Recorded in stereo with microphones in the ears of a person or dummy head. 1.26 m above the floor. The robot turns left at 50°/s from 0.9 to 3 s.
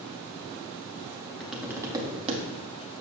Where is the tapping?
Straight ahead, 0.8 m; by 2.4 s 50° right, 0.8 m.